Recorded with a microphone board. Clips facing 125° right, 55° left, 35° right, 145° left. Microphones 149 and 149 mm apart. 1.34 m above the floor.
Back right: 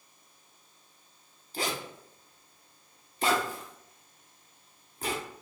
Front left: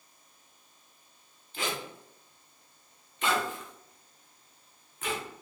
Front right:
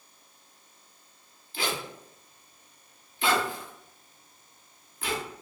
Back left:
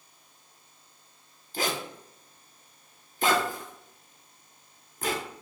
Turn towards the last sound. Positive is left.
turn(degrees=-175)